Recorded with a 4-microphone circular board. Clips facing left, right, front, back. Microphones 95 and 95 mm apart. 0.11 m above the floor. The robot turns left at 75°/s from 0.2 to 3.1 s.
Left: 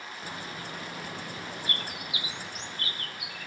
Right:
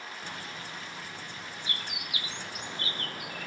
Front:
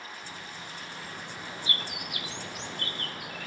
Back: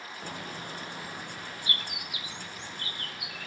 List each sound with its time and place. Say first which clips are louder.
0.2 s a bird: left 5 dB, back 4 dB; 170° left, 1.0 m; by 3.5 s 50° right, 1.0 m